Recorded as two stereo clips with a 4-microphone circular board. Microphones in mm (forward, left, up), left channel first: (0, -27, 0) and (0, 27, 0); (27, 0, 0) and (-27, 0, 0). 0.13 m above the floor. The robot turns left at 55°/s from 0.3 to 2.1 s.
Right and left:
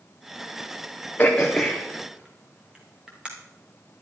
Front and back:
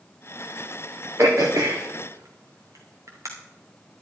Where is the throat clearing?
150° right, 2.5 m; by 3.3 s 160° left, 2.5 m.